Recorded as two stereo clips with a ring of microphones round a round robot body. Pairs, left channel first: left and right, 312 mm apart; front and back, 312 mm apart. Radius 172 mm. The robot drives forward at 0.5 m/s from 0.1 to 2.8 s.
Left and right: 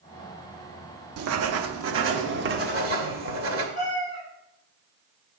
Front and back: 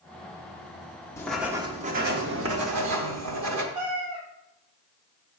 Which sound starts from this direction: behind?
A cat meowing, at 3.8 s.